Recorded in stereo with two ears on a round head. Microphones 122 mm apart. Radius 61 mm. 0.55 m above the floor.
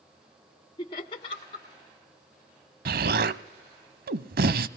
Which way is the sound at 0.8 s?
40° left (ahead or behind).